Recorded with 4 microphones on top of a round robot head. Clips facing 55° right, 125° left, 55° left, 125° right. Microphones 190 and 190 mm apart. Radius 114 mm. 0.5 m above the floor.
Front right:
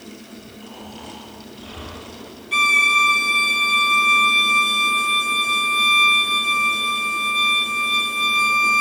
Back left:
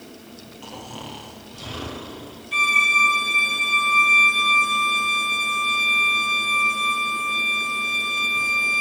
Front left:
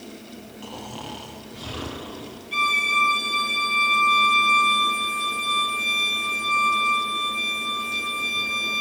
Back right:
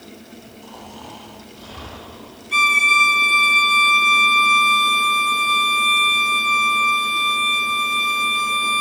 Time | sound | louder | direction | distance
0.6 | snoring | back left 3 dB, front left 4 dB | 80° left | 5.5 m
2.5 | a violin | front right 4 dB, back right 6 dB | 95° right | 4 m